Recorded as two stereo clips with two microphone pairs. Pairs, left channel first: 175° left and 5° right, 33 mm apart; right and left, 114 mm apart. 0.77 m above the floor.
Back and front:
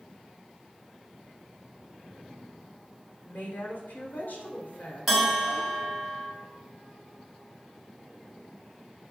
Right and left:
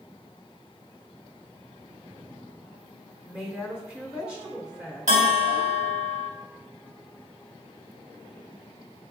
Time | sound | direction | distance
3.2 | a woman speaking | 170° left | 2.5 m
5.1 | a bell | 80° left | 2.5 m